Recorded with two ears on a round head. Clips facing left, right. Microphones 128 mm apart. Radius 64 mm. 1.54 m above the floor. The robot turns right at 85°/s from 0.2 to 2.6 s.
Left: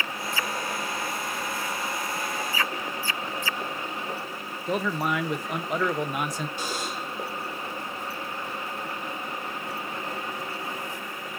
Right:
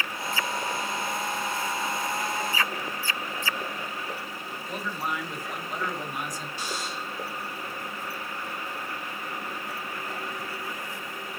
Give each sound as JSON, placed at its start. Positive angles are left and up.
{"t": 4.7, "sound": "a man speaking", "side_deg": 55, "distance_m": 1.2}
{"t": 6.6, "sound": "a buzzer", "side_deg": 45, "distance_m": 3.0}